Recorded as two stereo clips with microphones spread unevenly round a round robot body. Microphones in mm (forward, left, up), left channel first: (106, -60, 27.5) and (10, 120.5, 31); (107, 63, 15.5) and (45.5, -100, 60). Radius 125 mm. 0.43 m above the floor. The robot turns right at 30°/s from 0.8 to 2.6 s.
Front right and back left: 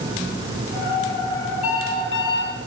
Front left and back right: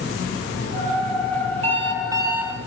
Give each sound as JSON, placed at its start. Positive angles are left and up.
{"t": 1.6, "sound": "an alarm clock", "azimuth_deg": -55, "distance_m": 7.5}